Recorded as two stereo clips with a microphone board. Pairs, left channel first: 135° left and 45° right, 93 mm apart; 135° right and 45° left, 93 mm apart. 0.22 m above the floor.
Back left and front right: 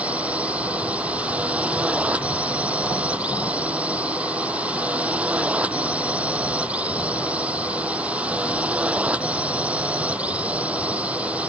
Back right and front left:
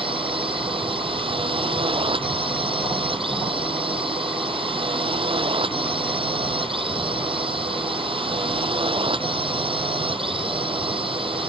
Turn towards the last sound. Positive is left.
turn(degrees=30)